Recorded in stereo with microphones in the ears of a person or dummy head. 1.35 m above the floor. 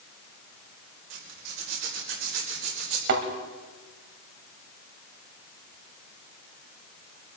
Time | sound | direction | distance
1.1 | a zipper | 80° right | 4 m
3.1 | a thud | 55° right (ahead or behind) | 2 m